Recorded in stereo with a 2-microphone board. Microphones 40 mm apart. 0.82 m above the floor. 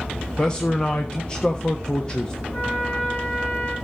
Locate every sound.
0.4 s a man speaking: 20° left (ahead or behind), 1.2 m
2.5 s a trumpet: 25° left (ahead or behind), 5 m